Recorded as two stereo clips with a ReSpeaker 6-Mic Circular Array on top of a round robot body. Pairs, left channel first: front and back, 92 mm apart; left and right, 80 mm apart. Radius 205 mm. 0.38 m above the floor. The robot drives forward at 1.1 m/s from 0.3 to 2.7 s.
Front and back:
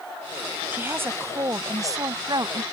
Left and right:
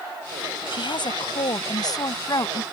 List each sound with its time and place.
0.7 s a woman speaking: 110° left; by 2.6 s 135° left